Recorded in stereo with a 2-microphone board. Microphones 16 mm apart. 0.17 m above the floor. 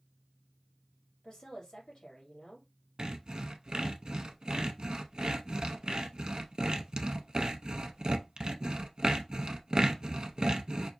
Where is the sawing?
45° right (ahead or behind), 0.6 m.